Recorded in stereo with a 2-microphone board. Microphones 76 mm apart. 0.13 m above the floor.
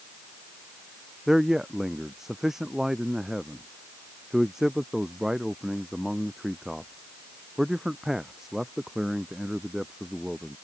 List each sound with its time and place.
1.3 s a man speaking: 5° right (ahead or behind)